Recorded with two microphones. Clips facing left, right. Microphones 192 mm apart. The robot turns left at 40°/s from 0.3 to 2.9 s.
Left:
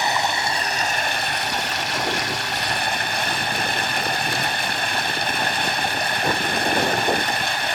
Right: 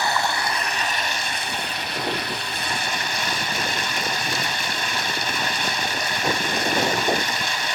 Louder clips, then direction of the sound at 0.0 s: Left 1 dB; 160° left.